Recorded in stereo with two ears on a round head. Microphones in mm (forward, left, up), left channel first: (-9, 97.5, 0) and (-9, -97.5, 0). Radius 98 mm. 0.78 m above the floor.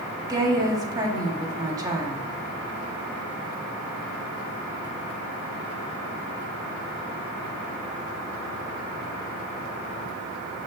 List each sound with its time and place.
0.3 s a woman speaking: 15° right (ahead or behind), 1.6 m